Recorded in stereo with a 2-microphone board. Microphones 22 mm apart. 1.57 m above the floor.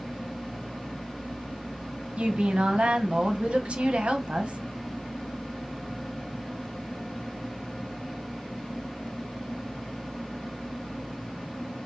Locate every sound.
2.2 s a woman speaking: 60° right (ahead or behind), 0.7 m